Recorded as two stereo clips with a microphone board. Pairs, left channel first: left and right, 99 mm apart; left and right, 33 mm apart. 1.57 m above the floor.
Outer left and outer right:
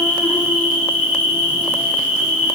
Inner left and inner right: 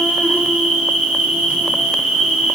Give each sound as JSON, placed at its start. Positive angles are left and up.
{"t": 0.0, "sound": "an insect", "side_deg": -20, "distance_m": 2.0}